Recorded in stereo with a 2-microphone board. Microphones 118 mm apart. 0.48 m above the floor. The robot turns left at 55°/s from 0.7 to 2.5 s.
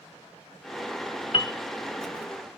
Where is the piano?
50° left (ahead or behind), 0.7 m.